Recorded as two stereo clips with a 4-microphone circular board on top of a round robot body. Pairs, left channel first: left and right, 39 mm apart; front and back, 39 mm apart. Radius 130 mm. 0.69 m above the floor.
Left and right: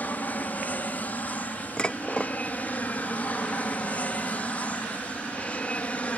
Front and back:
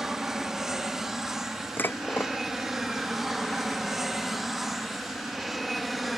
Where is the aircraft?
105° left; by 6.2 s 95° left.